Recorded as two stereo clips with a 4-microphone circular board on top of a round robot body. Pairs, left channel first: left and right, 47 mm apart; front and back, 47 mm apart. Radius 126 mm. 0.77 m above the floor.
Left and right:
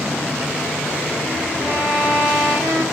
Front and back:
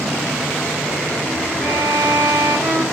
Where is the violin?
55° right, 1.0 m.